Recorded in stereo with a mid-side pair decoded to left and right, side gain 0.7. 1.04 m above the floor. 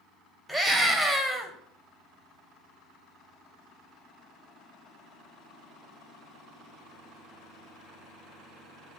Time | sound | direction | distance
0.5 | a scream | 5° left | 3 m